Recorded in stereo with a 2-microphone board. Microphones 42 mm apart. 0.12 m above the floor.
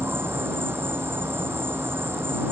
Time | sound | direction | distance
0.0 | an insect | 65° right (ahead or behind) | ?